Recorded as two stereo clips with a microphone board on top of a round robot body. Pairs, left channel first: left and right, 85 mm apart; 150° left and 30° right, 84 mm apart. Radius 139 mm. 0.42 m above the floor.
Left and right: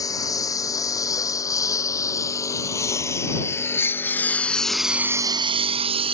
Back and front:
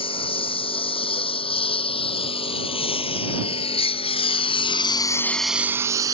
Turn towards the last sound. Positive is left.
turn(degrees=-80)